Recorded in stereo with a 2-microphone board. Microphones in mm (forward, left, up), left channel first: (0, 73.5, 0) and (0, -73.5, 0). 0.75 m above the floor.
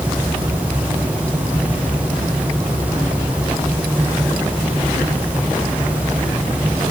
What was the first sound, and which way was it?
Only background noise.